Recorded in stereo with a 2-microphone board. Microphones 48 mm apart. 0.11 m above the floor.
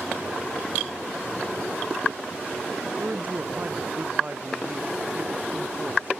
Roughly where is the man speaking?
Right.